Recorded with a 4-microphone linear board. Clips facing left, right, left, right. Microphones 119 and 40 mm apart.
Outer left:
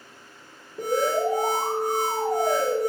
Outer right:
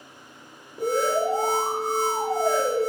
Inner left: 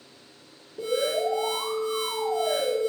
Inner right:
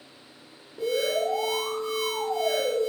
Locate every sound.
0.8 s an alarm: 5° right (ahead or behind), 2 m